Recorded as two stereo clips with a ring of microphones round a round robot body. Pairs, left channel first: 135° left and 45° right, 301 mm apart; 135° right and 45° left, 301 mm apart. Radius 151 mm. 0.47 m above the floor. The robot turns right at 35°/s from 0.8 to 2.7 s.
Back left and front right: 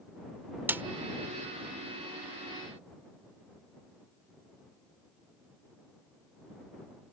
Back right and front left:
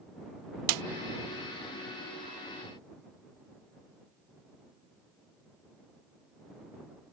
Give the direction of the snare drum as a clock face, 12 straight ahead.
11 o'clock.